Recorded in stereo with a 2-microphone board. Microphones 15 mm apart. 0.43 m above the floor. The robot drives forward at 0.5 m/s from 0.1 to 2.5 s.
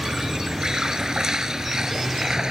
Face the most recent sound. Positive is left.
turn(degrees=-45)  # may be behind; listen again after turning